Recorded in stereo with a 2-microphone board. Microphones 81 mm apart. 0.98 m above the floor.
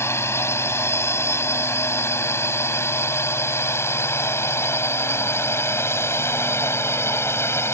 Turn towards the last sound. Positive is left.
turn(degrees=30)  # may be behind; listen again after turning